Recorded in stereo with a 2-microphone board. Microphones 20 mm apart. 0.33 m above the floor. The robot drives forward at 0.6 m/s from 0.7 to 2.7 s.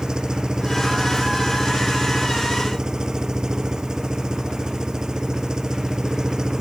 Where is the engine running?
40° right (ahead or behind).